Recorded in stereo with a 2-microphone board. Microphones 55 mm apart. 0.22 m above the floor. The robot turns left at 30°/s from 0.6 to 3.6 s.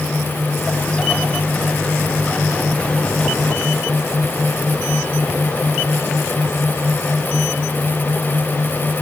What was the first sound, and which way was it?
Only background noise.